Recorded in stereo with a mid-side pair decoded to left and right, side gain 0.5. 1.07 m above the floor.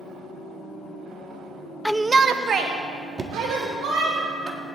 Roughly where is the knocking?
Ahead right.